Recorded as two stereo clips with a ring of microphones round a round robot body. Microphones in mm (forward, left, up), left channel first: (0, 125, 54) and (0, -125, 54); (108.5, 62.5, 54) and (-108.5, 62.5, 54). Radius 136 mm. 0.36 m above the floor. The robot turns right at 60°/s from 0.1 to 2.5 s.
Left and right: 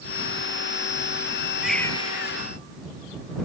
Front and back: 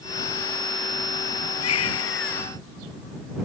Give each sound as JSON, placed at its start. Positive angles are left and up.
{"t": 1.6, "sound": "a baby crying", "azimuth_deg": -5}